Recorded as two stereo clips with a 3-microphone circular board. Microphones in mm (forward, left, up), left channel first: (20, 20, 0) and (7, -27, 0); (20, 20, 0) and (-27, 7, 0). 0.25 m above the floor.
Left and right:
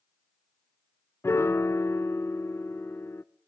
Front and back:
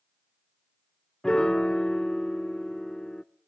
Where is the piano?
90° left, 0.7 m.